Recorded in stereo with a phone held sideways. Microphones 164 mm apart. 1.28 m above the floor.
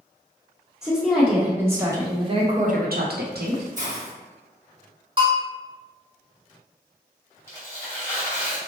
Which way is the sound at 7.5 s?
15° left (ahead or behind).